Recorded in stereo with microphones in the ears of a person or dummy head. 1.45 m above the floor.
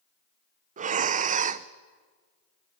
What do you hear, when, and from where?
0.8 s breathing: 30° right (ahead or behind), 0.7 m